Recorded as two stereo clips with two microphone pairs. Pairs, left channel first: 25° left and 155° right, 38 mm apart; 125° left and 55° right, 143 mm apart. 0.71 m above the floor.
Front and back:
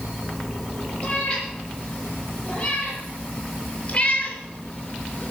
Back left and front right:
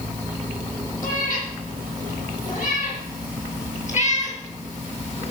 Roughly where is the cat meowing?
Left.